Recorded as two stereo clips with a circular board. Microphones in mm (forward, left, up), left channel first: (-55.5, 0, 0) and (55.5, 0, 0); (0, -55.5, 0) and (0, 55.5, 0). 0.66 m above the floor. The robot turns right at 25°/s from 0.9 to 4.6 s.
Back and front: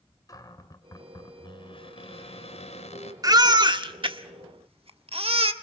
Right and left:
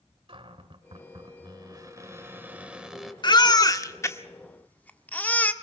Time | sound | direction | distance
0.3 | a cupboard door | 125° left | 2.5 m
3.2 | a baby crying | 50° right | 1.3 m